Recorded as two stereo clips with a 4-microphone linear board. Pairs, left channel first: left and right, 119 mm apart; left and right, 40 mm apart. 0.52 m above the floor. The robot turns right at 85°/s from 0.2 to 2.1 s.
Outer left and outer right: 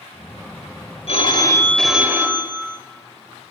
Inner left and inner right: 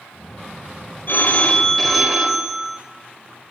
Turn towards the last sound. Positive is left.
turn(degrees=-160)